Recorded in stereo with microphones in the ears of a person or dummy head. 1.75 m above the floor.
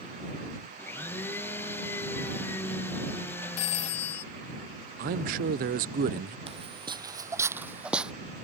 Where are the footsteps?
25° right (ahead or behind); by 8.1 s centre (ahead or behind).